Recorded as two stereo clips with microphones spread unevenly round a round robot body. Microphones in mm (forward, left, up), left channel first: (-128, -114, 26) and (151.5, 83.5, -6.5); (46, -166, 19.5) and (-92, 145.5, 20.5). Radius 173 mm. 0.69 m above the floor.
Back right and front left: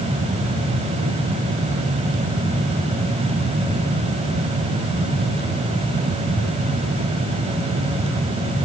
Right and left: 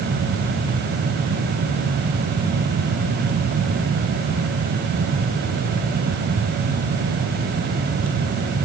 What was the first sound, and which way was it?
Only background noise.